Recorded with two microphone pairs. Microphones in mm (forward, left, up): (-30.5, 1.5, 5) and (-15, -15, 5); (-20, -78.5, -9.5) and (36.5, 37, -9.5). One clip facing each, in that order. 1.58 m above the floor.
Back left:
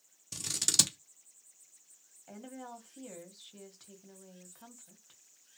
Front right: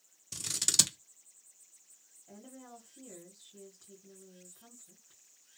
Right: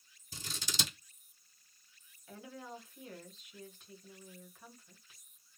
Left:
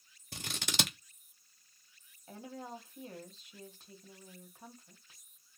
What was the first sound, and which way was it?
Scissors, 45° left.